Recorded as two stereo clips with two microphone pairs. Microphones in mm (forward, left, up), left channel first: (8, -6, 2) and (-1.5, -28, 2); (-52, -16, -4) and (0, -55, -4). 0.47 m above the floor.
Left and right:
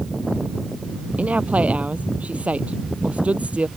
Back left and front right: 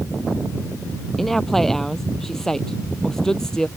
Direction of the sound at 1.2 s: 130° right.